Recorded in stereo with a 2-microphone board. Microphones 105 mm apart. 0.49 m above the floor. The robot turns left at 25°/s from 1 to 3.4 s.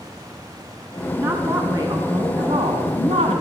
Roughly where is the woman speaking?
Ahead right.